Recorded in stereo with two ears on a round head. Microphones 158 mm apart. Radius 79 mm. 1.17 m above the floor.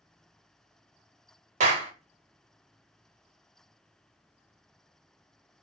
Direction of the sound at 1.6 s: 45° right (ahead or behind).